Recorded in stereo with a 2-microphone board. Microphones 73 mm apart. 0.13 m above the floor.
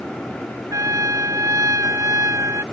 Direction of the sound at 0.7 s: 50° right (ahead or behind).